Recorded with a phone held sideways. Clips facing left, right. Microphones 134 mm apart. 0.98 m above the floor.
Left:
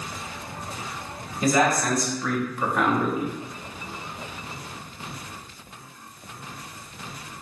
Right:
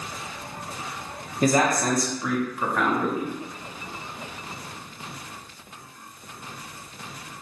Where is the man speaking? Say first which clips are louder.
Even; 45° right (ahead or behind), 0.9 m; by 3.3 s 25° left (ahead or behind), 0.9 m.